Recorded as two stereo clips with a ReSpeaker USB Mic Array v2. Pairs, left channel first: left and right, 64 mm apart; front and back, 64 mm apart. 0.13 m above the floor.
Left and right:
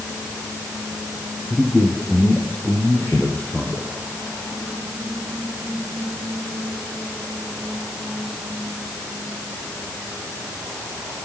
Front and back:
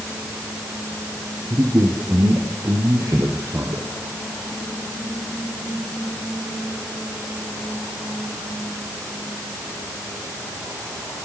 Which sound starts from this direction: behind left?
A man speaking, at 1.5 s.